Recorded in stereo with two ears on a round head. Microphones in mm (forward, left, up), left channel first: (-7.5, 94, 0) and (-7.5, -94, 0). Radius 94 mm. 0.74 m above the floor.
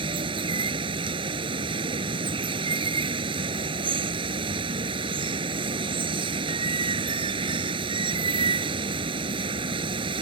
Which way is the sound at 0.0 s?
25° right (ahead or behind).